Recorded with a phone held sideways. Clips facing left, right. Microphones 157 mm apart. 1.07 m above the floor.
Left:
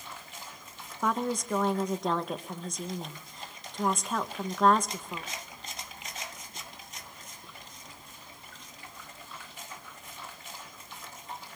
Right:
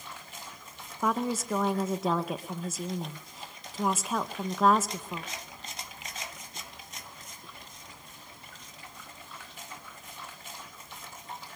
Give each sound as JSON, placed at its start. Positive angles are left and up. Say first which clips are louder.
{"t": 1.0, "sound": "a woman speaking", "louder": "right 1 dB", "side_deg": -5, "distance_m": 0.5}